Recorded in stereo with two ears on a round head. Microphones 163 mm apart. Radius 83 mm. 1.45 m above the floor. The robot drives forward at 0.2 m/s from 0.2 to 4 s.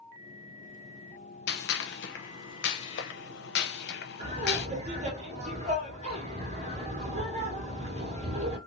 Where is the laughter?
40° right (ahead or behind), 1.8 m.